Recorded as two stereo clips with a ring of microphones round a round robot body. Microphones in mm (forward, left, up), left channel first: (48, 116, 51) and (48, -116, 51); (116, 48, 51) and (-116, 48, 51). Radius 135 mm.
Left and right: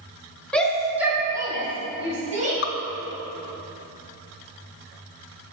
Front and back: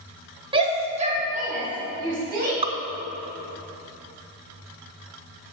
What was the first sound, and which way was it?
A shout, 165° left.